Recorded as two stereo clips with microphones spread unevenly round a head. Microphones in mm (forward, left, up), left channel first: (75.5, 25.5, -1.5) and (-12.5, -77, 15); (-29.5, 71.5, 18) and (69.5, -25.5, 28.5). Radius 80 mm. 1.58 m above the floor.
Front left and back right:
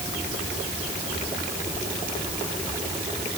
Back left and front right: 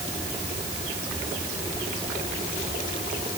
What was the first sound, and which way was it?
Only background noise.